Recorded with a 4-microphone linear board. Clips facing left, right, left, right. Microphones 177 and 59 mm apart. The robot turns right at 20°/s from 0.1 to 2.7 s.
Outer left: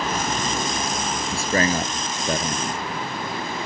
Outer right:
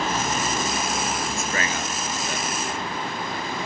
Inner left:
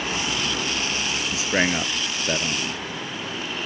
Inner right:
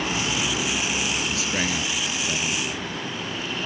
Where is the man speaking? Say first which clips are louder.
Outer left 6 dB, inner left 4 dB; 35° left (ahead or behind); by 2.8 s 50° left (ahead or behind).